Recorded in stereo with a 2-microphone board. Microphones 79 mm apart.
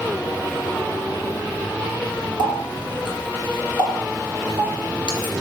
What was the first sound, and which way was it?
A running tap, 75° left (ahead or behind).